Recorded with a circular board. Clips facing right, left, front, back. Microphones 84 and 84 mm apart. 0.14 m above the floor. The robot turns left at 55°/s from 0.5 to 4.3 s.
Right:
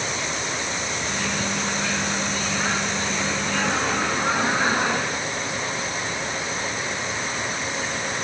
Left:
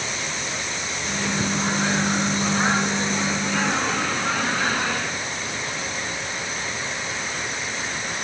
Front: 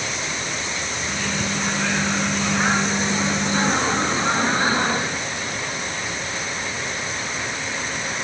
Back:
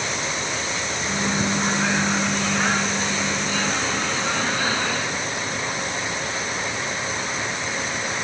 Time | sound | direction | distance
1.1 | a microwave | 155° left | 1.1 m